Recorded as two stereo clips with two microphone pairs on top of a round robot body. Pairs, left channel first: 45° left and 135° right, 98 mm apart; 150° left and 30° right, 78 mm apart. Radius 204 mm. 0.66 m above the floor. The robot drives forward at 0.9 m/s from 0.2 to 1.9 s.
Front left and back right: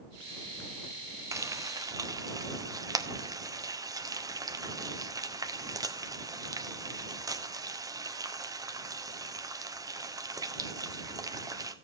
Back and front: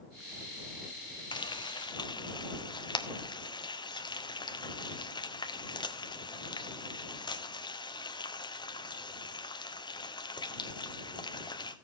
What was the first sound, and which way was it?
Frying, 165° left.